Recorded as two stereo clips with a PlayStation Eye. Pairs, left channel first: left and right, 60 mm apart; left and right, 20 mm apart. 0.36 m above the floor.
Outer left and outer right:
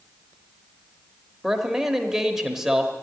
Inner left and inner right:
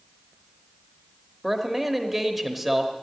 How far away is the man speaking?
About 1.1 m.